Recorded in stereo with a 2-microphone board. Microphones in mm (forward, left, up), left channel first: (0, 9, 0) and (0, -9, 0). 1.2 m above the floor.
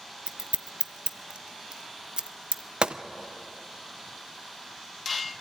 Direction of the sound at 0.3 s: 70° right (ahead or behind).